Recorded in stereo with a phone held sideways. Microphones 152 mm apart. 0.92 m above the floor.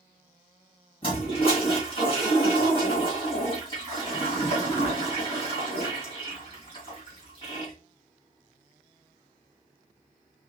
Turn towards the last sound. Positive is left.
turn(degrees=35)  # may be behind; listen again after turning